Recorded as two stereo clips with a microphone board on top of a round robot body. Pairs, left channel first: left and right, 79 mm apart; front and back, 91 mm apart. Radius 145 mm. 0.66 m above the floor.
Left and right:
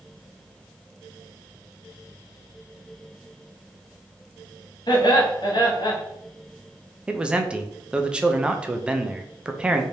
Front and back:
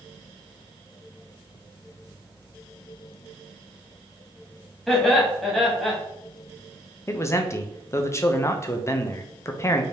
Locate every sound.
4.9 s laughter: 90° left, 1.6 m
7.1 s a man speaking: 20° right, 0.7 m